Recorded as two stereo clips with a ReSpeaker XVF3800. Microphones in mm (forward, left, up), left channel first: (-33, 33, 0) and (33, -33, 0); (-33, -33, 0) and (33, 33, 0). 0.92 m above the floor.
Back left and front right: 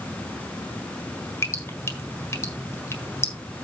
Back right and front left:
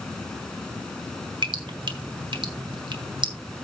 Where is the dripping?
75° left, 1.6 m.